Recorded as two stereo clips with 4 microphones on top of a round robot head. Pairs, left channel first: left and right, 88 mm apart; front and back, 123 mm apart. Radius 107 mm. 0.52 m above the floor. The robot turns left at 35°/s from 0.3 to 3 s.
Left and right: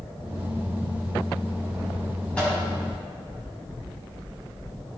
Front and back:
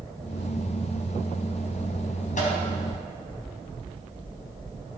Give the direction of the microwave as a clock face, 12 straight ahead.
12 o'clock.